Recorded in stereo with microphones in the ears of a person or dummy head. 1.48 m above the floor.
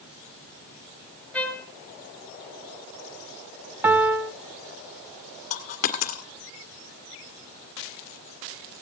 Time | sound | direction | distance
1.3 | a trumpet | 10° left (ahead or behind) | 1.7 m
3.8 | a piano | 10° right (ahead or behind) | 1.8 m
5.5 | a dropped coin | 45° left (ahead or behind) | 1.7 m